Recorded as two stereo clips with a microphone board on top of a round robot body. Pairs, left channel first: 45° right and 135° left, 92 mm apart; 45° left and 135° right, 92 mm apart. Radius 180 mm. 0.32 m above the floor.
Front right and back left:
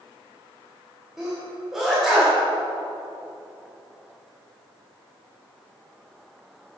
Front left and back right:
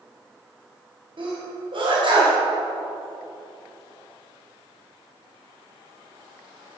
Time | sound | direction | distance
1.2 | a sneeze | 140° right | 3 m